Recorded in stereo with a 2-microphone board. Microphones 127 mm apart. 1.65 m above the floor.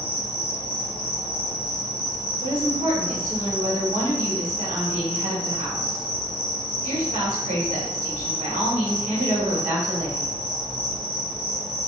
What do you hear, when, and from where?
0.0 s an insect: 45° left (ahead or behind), 0.9 m
2.4 s a woman speaking: 80° right, 1.4 m